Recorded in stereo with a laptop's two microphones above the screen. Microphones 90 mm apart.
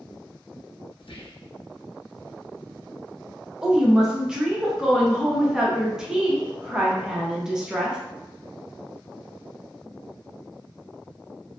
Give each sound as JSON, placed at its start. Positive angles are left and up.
{"t": 1.0, "sound": "whispering", "side_deg": 80, "distance_m": 0.6}
{"t": 3.6, "sound": "a woman speaking", "side_deg": -5, "distance_m": 0.8}